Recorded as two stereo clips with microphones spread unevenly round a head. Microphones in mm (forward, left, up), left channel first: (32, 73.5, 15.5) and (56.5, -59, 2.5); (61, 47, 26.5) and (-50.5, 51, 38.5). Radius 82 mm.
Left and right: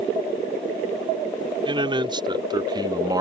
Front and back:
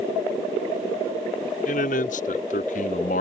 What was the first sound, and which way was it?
A man speaking, 25° right.